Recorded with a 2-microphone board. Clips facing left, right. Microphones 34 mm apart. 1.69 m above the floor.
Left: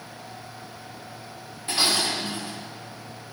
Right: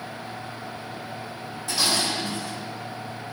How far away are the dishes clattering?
About 3.5 m.